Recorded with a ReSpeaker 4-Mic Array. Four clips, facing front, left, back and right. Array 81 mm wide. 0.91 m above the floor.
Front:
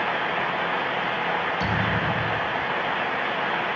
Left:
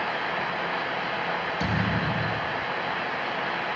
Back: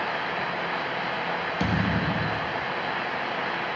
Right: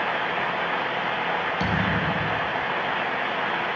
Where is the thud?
150° right, 3 m.